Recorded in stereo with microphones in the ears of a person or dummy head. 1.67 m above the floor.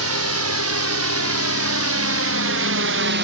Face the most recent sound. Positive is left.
turn(degrees=-55)  # may be behind; listen again after turning